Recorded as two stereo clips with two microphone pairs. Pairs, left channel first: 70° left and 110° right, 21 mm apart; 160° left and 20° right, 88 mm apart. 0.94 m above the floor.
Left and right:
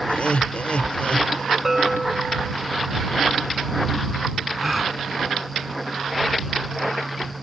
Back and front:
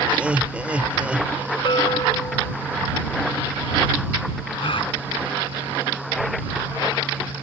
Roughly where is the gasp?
Behind.